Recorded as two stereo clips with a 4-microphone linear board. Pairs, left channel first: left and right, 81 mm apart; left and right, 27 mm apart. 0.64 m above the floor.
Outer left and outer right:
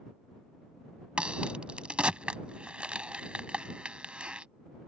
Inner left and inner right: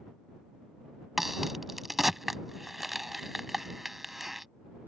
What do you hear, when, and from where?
1.2 s a crack: 15° right (ahead or behind)